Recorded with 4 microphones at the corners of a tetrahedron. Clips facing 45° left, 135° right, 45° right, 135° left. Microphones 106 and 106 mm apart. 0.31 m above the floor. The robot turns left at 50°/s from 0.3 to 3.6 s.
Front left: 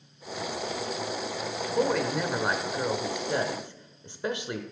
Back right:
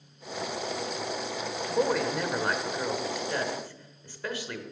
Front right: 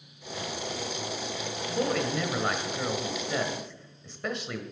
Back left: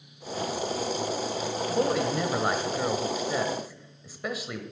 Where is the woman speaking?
155° left, 0.9 m; by 4.6 s 60° left, 0.9 m.